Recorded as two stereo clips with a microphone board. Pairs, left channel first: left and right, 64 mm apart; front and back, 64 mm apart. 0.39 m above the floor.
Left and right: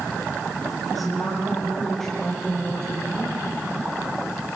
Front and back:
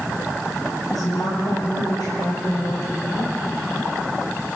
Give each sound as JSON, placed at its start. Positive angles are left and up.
{"t": 0.9, "sound": "a woman speaking", "azimuth_deg": 0, "distance_m": 8.0}